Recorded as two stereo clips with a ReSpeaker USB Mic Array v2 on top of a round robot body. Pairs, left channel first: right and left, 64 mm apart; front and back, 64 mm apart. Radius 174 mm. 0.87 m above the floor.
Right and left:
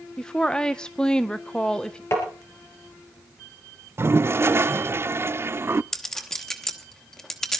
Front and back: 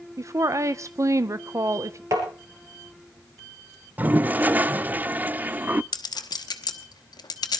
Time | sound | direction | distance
0.2 | a woman speaking | 165° right | 0.8 m
2.1 | tapping | 140° right | 3.5 m
4.0 | a toilet flushing | 125° left | 0.6 m
5.9 | a clink | 5° right | 1.3 m